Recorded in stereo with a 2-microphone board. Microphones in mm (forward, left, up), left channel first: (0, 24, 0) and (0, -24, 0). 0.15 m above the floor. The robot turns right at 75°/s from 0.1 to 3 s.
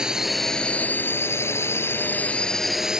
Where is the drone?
15° right; by 3.0 s 160° right.